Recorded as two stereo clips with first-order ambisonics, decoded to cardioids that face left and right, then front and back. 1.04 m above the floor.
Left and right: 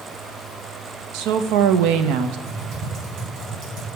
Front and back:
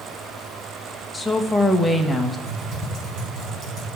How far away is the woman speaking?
About 0.8 m.